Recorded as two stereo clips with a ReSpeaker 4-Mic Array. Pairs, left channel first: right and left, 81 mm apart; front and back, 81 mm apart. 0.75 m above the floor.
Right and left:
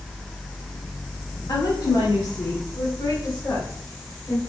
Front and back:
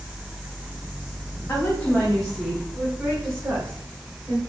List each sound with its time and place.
1.5 s a woman speaking: 60° right, 2 m; by 4.4 s 140° right, 4 m